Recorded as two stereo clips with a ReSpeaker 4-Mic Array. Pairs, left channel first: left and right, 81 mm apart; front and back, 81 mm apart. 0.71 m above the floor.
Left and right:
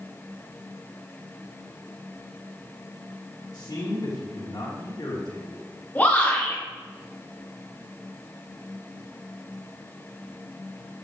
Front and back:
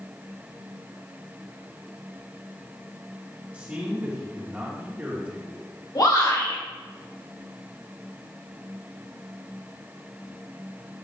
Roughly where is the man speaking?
Left.